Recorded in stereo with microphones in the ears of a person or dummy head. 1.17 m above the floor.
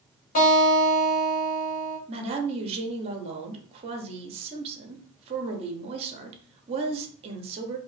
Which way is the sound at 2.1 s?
35° right (ahead or behind).